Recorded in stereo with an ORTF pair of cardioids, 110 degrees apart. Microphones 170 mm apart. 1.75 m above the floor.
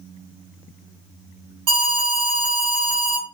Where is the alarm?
55° right, 1.7 m.